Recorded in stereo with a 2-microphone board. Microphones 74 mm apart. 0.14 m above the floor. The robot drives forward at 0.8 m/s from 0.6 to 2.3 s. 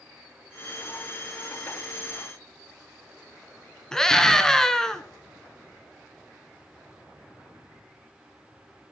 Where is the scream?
5° left (ahead or behind), 1.8 m.